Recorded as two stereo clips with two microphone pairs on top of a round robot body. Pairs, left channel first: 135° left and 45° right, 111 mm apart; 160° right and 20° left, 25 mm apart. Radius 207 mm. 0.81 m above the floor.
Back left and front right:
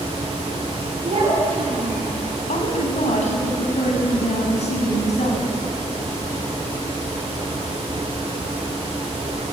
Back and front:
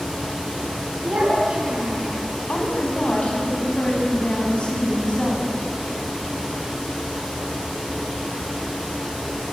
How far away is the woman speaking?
About 7 m.